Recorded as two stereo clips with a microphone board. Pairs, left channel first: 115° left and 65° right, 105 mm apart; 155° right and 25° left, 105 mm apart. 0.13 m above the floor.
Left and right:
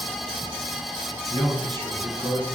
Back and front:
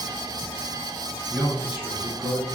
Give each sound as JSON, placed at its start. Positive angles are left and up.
{"t": 1.3, "sound": "a man speaking", "azimuth_deg": -60, "distance_m": 1.4}